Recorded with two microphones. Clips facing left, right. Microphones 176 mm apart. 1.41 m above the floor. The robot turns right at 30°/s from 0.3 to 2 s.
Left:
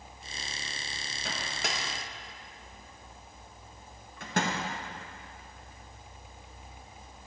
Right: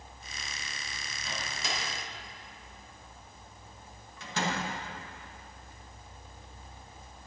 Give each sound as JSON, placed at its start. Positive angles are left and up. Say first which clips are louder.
{"t": 1.2, "sound": "a microwave", "louder": "left 2 dB", "side_deg": 75, "distance_m": 1.2}